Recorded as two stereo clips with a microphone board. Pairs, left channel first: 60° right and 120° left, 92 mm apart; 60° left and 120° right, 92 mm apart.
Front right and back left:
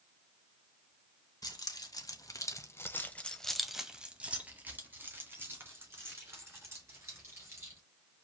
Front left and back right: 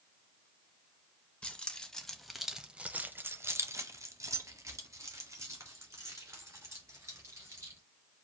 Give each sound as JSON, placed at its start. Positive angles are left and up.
{"t": 1.4, "sound": "keys jangling", "azimuth_deg": -20, "distance_m": 1.1}